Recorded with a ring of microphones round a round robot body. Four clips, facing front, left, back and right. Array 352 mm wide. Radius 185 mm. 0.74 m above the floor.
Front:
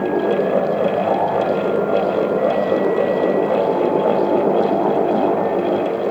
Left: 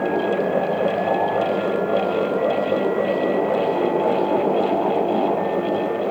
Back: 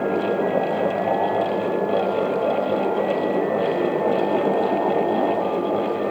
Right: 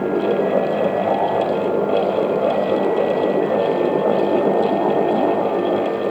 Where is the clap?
No clap in this recording.